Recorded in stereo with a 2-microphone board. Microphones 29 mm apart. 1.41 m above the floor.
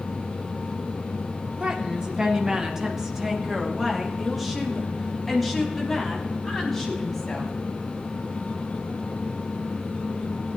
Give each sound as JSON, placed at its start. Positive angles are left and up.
{"t": 1.6, "sound": "a woman speaking", "side_deg": -35, "distance_m": 1.8}